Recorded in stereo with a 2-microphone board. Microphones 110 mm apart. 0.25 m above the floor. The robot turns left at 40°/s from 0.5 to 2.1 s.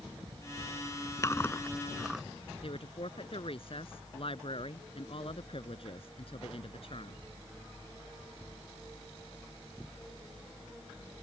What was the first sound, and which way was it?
Chewing, 30° left (ahead or behind).